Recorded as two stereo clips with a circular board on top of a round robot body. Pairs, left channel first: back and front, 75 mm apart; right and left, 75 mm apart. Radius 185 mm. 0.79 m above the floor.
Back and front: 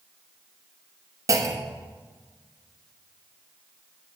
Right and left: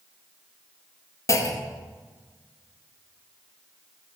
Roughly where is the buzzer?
I don't hear a buzzer.